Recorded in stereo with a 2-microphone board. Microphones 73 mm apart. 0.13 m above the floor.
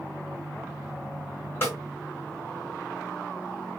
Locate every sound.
1.6 s a snare drum: 30° left (ahead or behind), 1.8 m